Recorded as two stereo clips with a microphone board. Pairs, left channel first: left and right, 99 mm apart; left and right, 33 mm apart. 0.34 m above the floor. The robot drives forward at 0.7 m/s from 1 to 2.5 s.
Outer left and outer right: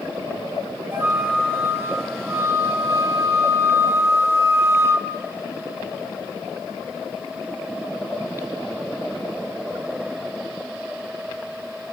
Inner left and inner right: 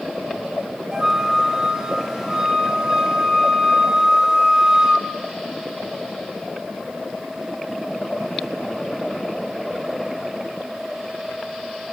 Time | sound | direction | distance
0.9 | a flute | 25° right (ahead or behind) | 1.6 m